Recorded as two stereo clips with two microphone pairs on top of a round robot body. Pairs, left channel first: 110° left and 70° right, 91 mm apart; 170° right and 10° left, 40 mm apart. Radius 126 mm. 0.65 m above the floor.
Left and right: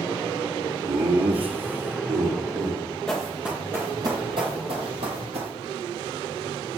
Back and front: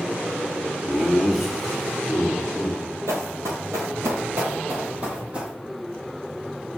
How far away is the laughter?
About 1.6 m.